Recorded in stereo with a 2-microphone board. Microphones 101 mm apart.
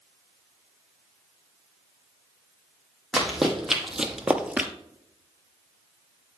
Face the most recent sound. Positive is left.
turn(degrees=-15)  # may be behind; listen again after turning